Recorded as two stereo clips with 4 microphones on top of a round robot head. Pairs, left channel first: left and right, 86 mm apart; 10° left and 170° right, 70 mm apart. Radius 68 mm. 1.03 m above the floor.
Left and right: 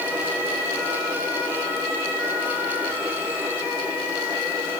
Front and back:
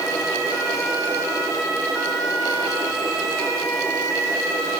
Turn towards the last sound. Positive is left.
No sound to turn to.